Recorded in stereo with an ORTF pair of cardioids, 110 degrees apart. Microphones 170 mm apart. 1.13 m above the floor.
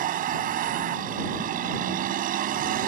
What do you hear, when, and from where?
0.0 s a vehicle: 60° right